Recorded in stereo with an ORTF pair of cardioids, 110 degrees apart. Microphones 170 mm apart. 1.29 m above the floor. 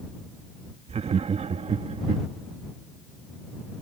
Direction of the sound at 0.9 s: 40° right.